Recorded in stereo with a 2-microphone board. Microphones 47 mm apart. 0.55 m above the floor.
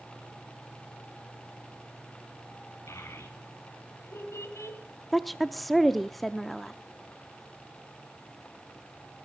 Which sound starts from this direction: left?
A child speaking, at 2.9 s.